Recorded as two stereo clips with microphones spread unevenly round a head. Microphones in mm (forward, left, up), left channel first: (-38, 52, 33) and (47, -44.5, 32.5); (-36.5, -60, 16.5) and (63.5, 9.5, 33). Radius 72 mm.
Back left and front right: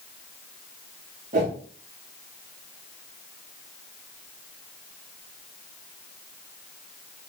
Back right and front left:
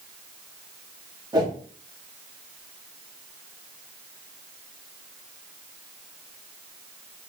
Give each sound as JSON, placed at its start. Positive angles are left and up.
{"t": 1.3, "sound": "a whoosh", "azimuth_deg": -25, "distance_m": 1.4}